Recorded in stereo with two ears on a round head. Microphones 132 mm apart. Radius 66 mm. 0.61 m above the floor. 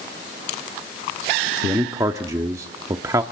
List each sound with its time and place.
1.6 s a man speaking: 20° right (ahead or behind), 1.0 m